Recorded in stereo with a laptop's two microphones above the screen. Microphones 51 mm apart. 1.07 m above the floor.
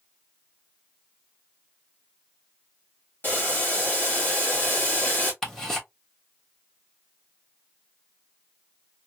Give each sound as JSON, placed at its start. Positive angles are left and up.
{"t": 3.2, "sound": "boiling", "side_deg": 40, "distance_m": 1.5}
{"t": 5.4, "sound": "ticking", "side_deg": 10, "distance_m": 1.2}